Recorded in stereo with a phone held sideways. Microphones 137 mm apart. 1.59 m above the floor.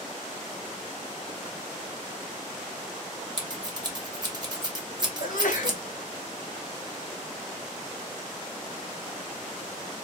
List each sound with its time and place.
3.4 s scissors: 30° right (ahead or behind), 1.3 m
5.2 s a sneeze: 70° left (ahead or behind), 2 m